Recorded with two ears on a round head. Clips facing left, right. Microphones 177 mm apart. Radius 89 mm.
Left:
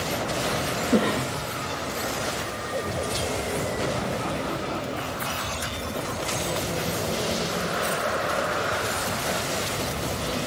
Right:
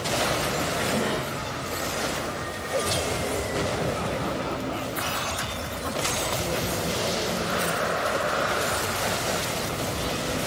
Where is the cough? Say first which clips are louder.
Left 9 dB; 60° left (ahead or behind), 1.5 m.